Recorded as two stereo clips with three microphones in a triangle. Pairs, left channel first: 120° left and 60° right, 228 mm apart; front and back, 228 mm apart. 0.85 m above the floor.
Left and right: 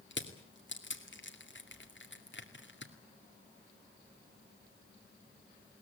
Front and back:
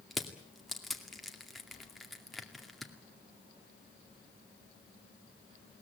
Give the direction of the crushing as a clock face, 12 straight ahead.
9 o'clock.